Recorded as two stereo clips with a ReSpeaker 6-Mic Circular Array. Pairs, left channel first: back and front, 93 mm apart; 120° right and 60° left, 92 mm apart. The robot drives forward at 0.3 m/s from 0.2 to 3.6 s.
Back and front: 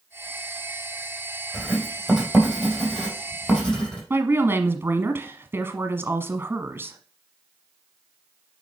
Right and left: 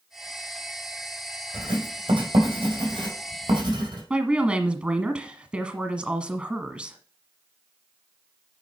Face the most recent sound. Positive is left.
turn(degrees=-5)